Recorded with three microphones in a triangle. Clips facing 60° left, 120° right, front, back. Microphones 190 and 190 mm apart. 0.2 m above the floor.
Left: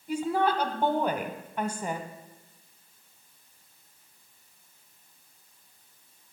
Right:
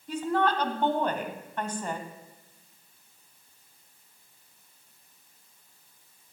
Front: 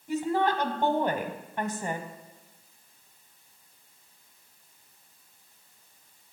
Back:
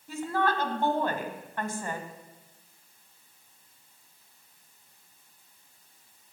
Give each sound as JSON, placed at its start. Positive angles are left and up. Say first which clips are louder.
{"t": 0.1, "sound": "a woman speaking", "louder": "even, front 3 dB", "azimuth_deg": 0, "distance_m": 1.0}